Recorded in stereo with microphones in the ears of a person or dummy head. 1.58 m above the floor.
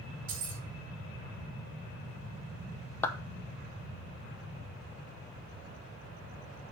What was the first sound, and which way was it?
Keys jangling, 50° right (ahead or behind).